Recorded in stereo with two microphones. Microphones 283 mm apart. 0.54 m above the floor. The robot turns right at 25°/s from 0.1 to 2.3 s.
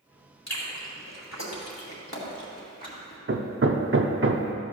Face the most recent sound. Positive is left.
turn(degrees=-45)  # may be behind; listen again after turning